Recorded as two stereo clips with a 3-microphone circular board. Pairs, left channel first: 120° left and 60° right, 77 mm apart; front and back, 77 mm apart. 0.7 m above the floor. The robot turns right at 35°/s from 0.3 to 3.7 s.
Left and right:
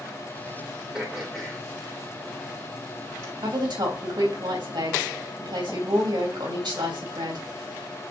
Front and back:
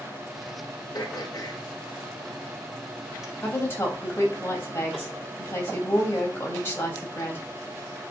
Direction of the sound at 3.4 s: 70° right.